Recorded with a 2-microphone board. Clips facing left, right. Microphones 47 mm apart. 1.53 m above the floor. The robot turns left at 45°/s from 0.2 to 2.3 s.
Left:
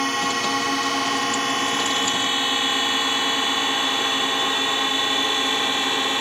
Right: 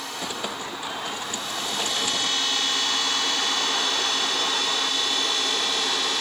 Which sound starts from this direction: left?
A drone, at 0.0 s.